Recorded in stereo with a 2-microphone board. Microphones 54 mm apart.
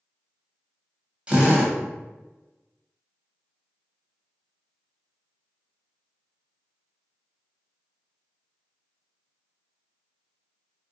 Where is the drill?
25° right (ahead or behind), 0.7 m.